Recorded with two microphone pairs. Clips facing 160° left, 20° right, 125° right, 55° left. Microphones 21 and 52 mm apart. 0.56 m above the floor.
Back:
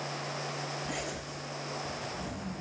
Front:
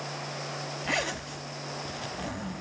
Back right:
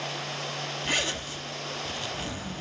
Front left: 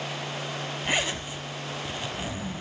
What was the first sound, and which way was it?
A zipper, 25° right.